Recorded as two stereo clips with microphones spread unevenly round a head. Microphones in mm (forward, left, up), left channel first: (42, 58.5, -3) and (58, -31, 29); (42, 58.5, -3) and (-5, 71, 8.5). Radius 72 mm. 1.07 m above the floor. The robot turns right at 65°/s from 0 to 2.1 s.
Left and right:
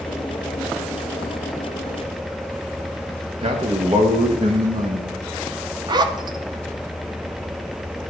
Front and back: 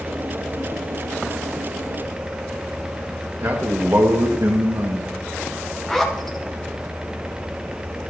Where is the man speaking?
135° right, 1.6 m.